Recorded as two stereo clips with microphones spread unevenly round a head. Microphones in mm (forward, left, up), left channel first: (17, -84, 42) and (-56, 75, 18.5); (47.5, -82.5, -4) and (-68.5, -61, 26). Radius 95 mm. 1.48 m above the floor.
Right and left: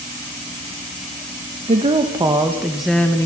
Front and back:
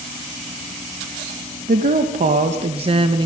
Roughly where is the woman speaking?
Behind.